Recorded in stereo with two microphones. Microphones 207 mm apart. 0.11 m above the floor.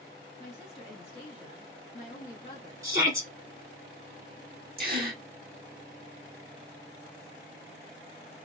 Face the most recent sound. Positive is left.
turn(degrees=-45)  # may be behind; listen again after turning